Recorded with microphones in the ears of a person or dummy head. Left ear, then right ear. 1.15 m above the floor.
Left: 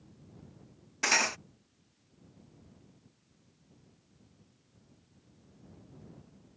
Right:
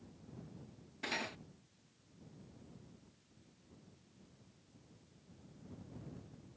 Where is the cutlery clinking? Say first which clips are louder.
Left 13 dB; 55° left (ahead or behind).